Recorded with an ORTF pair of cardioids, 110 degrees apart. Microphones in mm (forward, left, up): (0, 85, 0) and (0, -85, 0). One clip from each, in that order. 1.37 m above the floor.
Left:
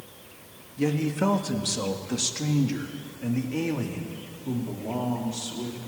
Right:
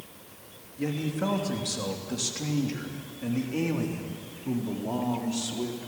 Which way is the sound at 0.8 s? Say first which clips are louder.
Left 5 dB; 35° left.